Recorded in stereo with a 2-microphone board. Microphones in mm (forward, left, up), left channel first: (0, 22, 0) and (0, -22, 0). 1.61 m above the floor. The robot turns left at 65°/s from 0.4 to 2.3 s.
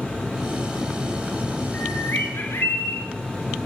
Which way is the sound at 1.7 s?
135° left.